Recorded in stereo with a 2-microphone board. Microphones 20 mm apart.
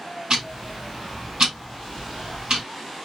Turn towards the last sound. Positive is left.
turn(degrees=-50)  # may be behind; listen again after turning